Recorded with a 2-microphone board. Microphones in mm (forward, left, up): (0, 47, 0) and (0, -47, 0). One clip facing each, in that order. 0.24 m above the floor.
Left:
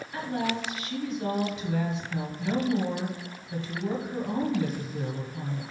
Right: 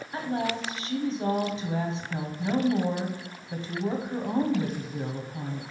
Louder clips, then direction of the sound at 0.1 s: Right 1 dB; 35° right (ahead or behind).